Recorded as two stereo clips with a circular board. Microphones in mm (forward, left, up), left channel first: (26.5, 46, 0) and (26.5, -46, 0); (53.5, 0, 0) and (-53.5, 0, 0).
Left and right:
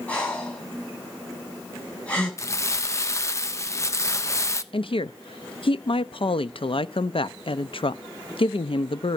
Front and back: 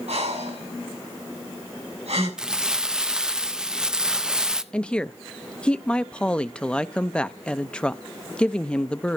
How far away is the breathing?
About 7 m.